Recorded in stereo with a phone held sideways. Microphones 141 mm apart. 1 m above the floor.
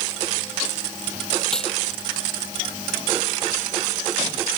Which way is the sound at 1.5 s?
5° left (ahead or behind).